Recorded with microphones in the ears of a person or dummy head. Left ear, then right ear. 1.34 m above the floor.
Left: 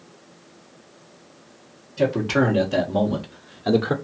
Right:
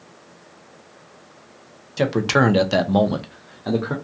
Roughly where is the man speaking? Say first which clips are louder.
Right 2 dB; right.